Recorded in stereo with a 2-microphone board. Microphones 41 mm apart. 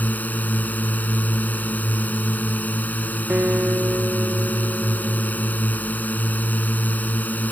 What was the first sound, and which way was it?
A drone, 40° left (ahead or behind).